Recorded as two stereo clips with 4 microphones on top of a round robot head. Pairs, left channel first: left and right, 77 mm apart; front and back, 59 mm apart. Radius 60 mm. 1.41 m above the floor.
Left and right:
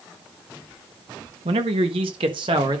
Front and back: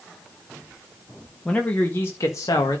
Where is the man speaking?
85° right, 1.2 m; by 2.8 s 45° right, 1.5 m.